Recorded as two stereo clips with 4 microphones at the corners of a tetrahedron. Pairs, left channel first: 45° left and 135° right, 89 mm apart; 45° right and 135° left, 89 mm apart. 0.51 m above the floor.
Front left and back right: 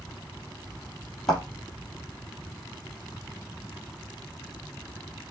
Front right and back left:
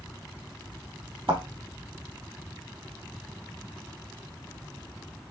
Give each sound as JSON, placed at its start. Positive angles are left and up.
{"t": 1.3, "sound": "a thud", "azimuth_deg": 130, "distance_m": 3.5}